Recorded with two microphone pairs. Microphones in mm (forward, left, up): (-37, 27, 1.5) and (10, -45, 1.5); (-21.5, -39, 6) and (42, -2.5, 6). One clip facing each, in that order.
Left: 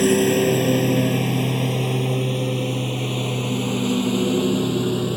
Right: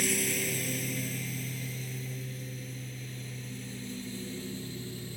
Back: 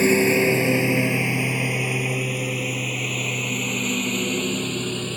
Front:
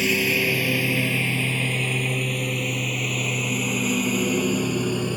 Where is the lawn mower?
155° left; by 5.2 s 110° left.